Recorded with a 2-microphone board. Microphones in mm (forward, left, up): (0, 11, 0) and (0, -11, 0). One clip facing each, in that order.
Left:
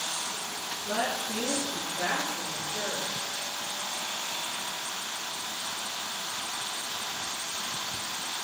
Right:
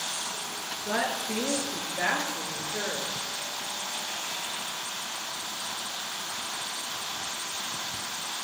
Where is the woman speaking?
40° right (ahead or behind), 7 m; by 3.3 s 45° right (ahead or behind), 8 m.